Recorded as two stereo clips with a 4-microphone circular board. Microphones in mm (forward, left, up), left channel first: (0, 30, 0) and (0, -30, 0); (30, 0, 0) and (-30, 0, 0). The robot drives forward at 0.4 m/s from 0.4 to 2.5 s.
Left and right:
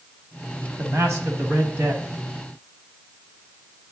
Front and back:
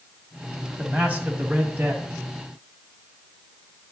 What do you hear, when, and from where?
0.8 s a man speaking: 115° right, 1.5 m; by 2.1 s 130° right, 1.7 m